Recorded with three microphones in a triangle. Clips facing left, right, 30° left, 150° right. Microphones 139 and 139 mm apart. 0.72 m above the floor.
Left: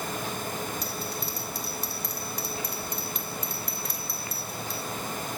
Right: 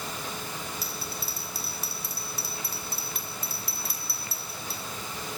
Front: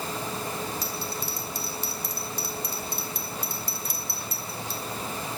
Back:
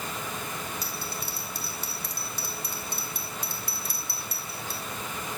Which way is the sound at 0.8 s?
175° right.